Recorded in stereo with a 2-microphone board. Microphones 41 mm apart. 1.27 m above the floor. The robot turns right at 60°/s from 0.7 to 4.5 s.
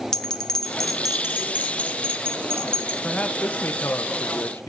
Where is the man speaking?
20° left, 0.8 m; by 4.7 s 105° left, 0.8 m.